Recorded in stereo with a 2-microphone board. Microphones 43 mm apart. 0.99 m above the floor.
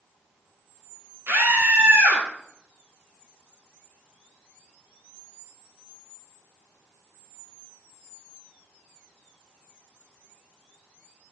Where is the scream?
85° right, 4.5 m.